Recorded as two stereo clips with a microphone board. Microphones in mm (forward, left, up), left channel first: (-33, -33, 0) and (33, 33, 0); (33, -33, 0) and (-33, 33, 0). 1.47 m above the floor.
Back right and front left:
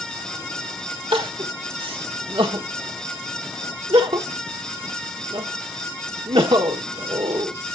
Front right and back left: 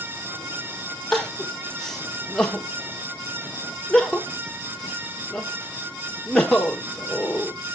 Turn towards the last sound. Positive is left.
turn(degrees=40)